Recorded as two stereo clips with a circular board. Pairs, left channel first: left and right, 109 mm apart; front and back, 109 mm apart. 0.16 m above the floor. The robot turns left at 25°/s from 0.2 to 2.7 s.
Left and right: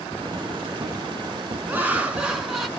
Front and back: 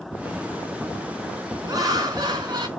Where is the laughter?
155° right, 1.3 m; by 2.7 s straight behind, 1.3 m.